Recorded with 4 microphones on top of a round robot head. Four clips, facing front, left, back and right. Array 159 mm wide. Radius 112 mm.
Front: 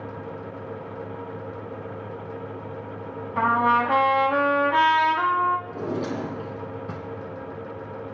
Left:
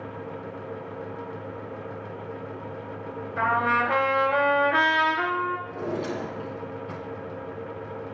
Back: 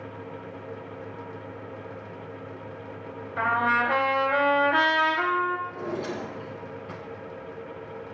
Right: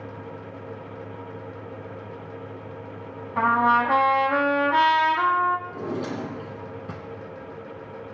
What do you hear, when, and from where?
3.4 s a trumpet: 50° right, 2.5 m
5.7 s a drawer: 35° right, 3 m